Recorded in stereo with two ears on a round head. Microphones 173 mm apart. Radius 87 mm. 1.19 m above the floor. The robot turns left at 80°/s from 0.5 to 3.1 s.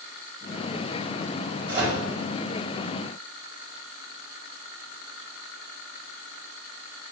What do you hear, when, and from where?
1.7 s a microwave: 20° right (ahead or behind), 3 m; by 2.0 s 10° left (ahead or behind), 3 m